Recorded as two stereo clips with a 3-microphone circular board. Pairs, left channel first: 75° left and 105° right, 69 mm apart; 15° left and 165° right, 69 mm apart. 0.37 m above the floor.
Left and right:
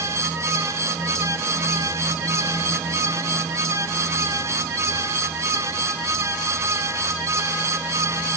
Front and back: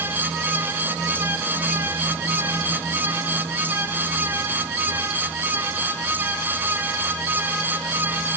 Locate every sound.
Only background noise.